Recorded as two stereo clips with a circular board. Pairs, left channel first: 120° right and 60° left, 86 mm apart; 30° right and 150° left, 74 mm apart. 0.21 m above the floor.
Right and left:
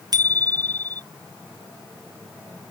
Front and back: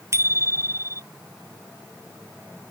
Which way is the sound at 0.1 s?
100° left.